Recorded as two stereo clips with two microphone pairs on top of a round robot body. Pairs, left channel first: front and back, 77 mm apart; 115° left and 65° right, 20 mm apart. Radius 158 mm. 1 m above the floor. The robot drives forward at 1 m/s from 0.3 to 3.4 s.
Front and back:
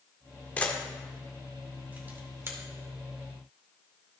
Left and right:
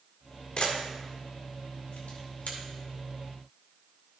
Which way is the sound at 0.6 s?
70° left.